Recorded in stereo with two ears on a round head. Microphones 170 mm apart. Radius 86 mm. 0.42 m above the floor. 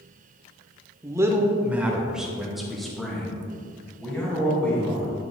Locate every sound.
1.0 s a man speaking: 20° right (ahead or behind), 0.8 m; by 5.1 s 5° left (ahead or behind), 3 m